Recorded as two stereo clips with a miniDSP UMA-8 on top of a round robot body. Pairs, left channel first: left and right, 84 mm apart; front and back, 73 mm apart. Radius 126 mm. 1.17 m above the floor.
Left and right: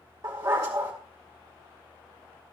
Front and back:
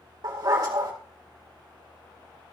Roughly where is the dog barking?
Behind right.